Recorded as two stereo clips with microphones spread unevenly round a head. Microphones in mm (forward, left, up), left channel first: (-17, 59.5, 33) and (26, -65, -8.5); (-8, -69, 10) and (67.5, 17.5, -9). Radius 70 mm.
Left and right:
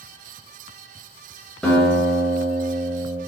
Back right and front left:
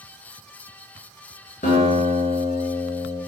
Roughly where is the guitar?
Behind.